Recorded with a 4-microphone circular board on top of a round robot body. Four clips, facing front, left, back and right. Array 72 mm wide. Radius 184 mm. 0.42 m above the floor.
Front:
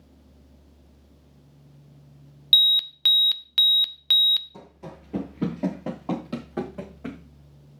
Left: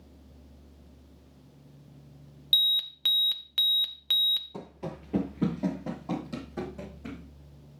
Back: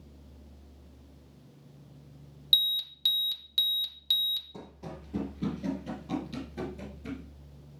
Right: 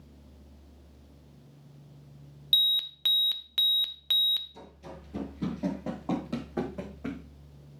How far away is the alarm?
About 0.6 m.